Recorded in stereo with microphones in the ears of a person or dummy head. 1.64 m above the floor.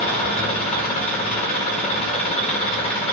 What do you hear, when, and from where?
0.0 s an engine running: 40° left (ahead or behind), 1.8 m